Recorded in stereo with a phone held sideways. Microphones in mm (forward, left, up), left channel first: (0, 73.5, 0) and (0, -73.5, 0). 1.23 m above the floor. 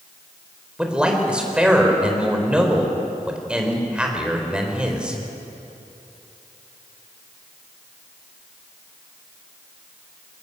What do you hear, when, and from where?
0.8 s a man speaking: 5° right (ahead or behind), 4 m